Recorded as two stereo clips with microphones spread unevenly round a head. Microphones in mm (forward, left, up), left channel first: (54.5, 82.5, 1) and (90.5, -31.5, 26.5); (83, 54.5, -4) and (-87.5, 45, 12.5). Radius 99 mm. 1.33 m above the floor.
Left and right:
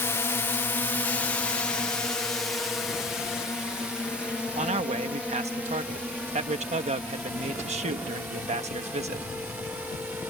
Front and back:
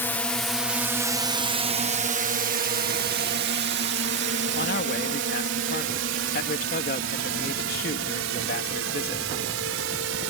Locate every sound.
0.0 s a drone: 70° left; by 10.3 s 155° right
4.5 s a man speaking: 45° right